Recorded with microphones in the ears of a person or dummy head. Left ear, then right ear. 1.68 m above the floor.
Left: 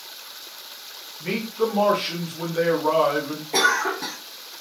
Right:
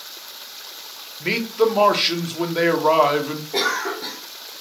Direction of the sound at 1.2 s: 25° right (ahead or behind).